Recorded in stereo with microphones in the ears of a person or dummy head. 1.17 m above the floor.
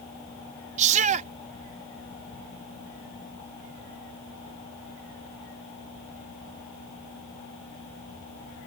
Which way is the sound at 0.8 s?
40° right (ahead or behind).